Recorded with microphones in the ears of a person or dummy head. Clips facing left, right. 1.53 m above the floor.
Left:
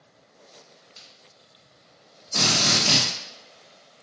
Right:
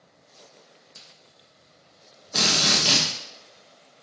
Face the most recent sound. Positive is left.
turn(degrees=-20)  # may be behind; listen again after turning